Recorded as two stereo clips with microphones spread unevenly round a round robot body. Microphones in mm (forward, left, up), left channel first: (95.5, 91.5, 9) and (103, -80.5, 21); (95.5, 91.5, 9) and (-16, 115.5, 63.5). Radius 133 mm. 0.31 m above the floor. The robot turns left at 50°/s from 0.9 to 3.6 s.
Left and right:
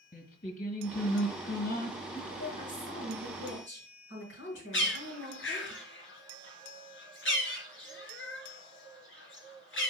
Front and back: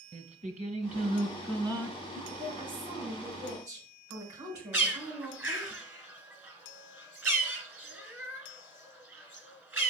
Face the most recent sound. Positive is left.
turn(degrees=90)